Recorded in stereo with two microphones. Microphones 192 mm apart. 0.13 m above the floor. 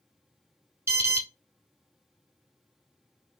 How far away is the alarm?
About 1.0 m.